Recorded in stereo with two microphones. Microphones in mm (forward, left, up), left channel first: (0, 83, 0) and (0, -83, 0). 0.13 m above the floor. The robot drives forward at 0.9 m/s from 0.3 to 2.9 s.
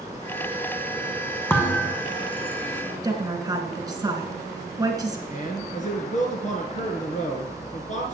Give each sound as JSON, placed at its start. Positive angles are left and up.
{"t": 1.5, "sound": "a thud", "side_deg": 10, "distance_m": 1.7}
{"t": 3.0, "sound": "a woman speaking", "side_deg": -20, "distance_m": 1.8}
{"t": 5.3, "sound": "a man speaking", "side_deg": 50, "distance_m": 1.8}